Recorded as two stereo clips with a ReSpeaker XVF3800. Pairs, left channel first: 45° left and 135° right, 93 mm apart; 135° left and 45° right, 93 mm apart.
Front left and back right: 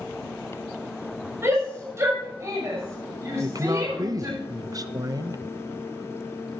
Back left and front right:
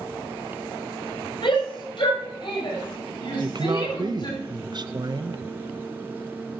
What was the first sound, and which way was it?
A shout, 165° left.